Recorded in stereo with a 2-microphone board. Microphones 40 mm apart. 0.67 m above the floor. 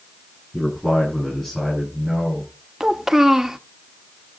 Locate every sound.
0.5 s a man speaking: centre (ahead or behind), 8.5 m; by 2.5 s 5° right (ahead or behind), 9 m
2.8 s a child speaking: 10° right (ahead or behind), 0.6 m